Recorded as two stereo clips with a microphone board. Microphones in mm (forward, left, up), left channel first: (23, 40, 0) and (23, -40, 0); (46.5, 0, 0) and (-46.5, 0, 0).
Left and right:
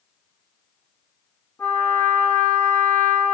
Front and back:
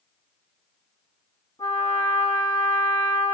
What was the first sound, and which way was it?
A trumpet, 25° left.